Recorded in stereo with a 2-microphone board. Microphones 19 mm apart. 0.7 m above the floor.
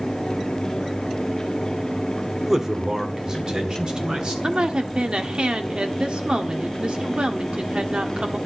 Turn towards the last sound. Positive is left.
turn(degrees=-70)  # may be behind; listen again after turning